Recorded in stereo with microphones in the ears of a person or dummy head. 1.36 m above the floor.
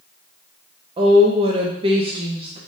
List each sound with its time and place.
1.0 s a woman speaking: 30° right (ahead or behind), 0.5 m